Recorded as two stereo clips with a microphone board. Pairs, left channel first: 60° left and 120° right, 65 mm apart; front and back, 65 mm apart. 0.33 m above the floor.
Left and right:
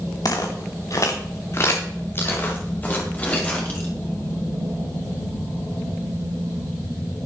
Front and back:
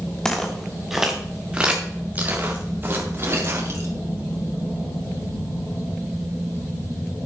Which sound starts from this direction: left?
Footsteps, at 0.2 s.